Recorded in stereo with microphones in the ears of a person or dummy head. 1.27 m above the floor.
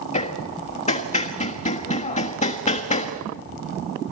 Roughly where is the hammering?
Left.